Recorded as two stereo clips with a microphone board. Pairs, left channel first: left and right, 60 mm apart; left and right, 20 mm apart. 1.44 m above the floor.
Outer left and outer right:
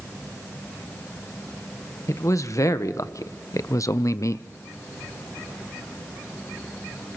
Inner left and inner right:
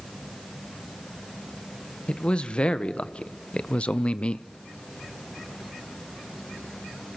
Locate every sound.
2.1 s a man speaking: 60° left (ahead or behind), 1.6 m; by 4.5 s 55° left (ahead or behind), 0.6 m